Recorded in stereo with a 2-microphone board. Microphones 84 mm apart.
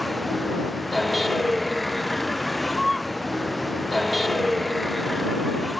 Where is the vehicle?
Centre (ahead or behind).